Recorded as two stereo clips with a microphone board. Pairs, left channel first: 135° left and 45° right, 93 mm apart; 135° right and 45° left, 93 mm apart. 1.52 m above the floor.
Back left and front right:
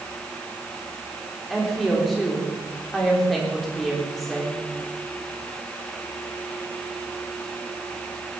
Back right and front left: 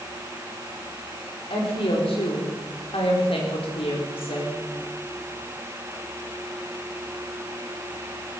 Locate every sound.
1.5 s a woman speaking: 135° right, 3.5 m